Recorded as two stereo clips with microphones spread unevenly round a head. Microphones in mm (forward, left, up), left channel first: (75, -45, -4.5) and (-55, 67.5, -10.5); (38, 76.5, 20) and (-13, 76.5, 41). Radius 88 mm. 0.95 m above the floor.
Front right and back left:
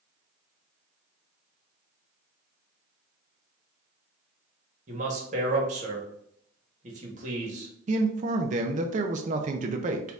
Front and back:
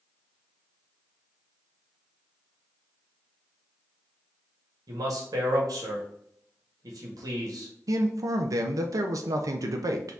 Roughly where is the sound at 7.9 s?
Behind.